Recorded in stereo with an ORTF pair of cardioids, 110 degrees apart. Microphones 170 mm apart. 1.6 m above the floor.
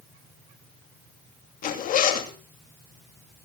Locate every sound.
1.6 s a zipper: 60° left, 2.5 m